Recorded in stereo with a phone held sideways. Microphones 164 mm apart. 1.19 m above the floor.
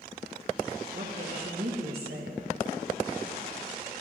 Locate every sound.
0.9 s a woman speaking: 75° right (ahead or behind), 1.8 m